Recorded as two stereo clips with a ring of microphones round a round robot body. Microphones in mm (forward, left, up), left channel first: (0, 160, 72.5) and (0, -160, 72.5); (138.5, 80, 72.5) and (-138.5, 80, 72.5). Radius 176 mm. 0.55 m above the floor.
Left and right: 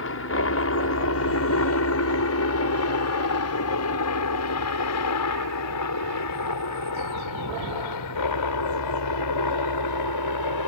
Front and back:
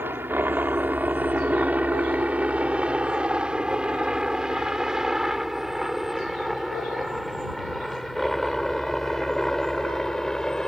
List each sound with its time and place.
0.0 s a helicopter: 100° left; by 10.7 s 90° left